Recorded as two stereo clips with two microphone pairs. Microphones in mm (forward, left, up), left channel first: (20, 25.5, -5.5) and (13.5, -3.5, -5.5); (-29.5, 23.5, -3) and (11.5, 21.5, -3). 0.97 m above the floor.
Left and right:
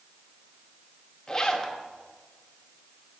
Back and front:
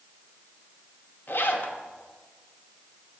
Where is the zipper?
150° left, 0.7 m.